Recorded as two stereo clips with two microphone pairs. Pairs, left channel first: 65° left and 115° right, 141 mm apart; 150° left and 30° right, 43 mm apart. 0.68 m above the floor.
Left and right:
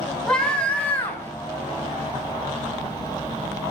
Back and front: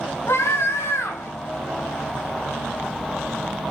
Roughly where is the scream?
Behind left.